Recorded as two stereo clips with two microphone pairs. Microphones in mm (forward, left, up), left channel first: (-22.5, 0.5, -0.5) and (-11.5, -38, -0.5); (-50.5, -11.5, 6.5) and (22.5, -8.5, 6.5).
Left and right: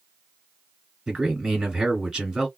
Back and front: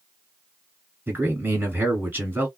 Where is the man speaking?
25° right, 1.8 m.